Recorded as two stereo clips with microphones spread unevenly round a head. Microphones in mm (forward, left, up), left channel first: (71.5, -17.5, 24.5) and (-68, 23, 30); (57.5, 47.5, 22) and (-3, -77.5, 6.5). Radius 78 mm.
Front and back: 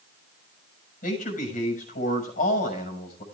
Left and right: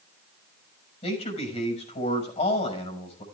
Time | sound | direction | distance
1.0 | a man speaking | 25° left | 6 m